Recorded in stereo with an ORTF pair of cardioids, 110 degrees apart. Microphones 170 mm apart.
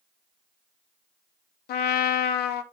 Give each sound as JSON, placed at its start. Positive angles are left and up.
{"t": 1.7, "sound": "a trumpet", "azimuth_deg": 70, "distance_m": 1.0}